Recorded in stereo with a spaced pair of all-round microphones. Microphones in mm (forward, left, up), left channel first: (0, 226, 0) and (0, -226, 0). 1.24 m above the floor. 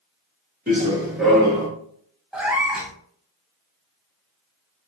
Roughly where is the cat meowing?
Centre.